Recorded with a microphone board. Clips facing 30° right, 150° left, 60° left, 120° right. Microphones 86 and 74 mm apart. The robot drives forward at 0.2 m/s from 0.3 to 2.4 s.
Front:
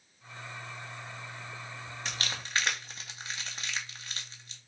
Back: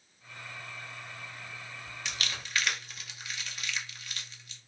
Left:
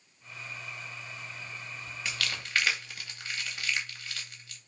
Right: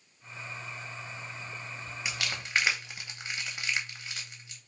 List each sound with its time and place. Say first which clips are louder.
2.0 s crumpling: even, even; 55° right, 0.5 m; by 4.6 s 65° right, 0.5 m